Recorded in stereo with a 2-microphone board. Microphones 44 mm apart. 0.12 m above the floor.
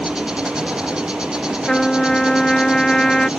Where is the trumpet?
15° left (ahead or behind).